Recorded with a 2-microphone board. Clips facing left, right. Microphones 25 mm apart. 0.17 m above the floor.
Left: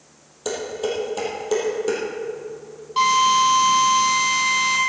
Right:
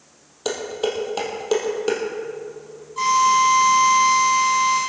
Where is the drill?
60° left (ahead or behind), 4.5 m.